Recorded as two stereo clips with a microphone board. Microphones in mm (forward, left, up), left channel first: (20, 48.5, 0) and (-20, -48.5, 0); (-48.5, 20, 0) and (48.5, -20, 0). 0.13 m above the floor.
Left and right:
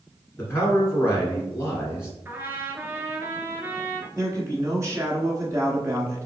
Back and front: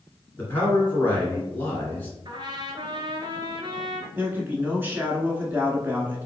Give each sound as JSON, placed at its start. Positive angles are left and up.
{"t": 0.4, "sound": "a man speaking", "azimuth_deg": 105, "distance_m": 1.8}
{"t": 2.2, "sound": "a trumpet", "azimuth_deg": -45, "distance_m": 0.7}
{"t": 4.2, "sound": "a man speaking", "azimuth_deg": -80, "distance_m": 1.3}